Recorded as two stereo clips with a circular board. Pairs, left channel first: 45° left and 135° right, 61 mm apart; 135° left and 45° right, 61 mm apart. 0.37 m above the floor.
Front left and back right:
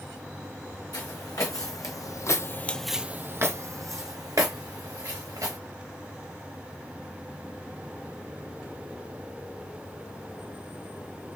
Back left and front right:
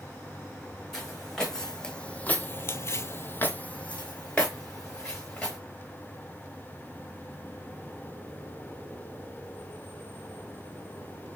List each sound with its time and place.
0.9 s footsteps: 50° left, 1.6 m; by 5.6 s 145° right, 2.5 m